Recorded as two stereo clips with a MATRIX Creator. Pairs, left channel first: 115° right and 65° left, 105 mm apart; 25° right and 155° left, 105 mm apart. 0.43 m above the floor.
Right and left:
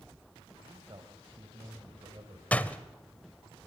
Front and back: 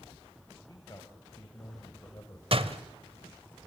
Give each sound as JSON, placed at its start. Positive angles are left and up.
{"t": 0.7, "sound": "a man speaking", "azimuth_deg": 25, "distance_m": 3.0}
{"t": 2.5, "sound": "a door slam", "azimuth_deg": 170, "distance_m": 1.1}